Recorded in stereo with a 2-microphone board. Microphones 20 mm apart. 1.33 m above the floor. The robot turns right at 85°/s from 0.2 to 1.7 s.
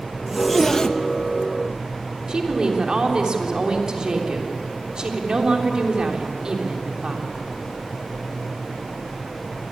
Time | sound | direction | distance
0.3 | a zipper | 15° right (ahead or behind) | 1.2 m
2.3 | a woman speaking | 50° right (ahead or behind) | 3.5 m